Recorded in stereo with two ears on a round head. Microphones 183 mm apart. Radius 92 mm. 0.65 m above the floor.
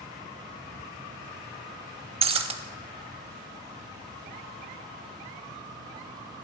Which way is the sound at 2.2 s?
30° right (ahead or behind).